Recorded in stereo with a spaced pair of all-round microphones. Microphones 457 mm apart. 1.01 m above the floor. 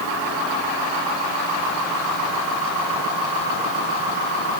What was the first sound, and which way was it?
Only background noise.